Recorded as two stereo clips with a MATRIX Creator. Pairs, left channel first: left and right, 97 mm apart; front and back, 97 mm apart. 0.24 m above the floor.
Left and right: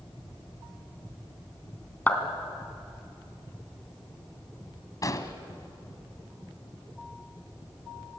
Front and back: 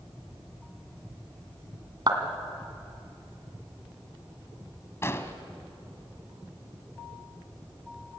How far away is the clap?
About 2.5 m.